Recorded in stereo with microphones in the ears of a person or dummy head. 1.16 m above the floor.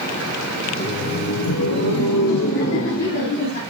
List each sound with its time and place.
0.7 s laughter: 25° left (ahead or behind), 0.6 m; by 3.6 s 60° left (ahead or behind), 1.7 m